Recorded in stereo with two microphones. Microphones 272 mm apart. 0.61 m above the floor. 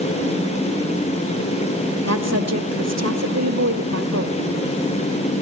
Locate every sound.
2.1 s a woman speaking: 60° right (ahead or behind), 2 m